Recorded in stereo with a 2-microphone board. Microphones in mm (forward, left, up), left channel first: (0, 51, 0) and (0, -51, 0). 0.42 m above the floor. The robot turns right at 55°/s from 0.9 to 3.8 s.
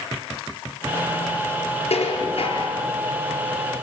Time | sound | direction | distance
1.9 | dishes clattering | 80° left | 5 m